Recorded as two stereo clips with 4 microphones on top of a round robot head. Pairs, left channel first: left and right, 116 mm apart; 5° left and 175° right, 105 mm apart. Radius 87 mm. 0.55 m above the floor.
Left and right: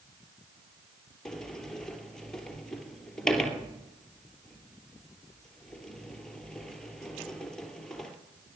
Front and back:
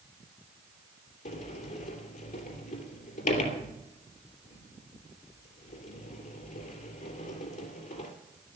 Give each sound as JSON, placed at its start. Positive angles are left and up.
{"t": 1.2, "sound": "a sliding door", "azimuth_deg": 5, "distance_m": 3.0}